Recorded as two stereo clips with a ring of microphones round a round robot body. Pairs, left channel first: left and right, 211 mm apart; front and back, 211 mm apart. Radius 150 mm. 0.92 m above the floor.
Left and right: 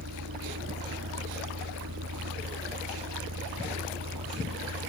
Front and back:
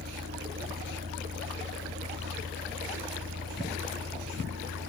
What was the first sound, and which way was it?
A vehicle, 120° right.